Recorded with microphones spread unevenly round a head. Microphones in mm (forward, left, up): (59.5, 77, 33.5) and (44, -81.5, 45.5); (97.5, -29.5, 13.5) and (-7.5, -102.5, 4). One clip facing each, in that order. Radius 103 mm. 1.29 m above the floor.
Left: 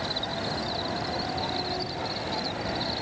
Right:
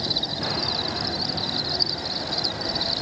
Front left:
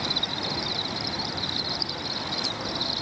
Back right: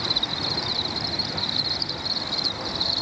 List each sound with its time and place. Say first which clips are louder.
0.0 s an insect: right 1 dB, even; 50° right